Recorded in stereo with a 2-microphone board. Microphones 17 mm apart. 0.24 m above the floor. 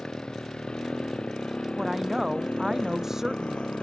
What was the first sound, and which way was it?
A motorcycle, 50° left (ahead or behind).